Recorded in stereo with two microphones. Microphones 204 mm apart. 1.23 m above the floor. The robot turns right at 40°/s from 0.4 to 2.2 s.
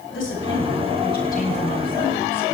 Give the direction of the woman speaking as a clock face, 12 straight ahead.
9 o'clock.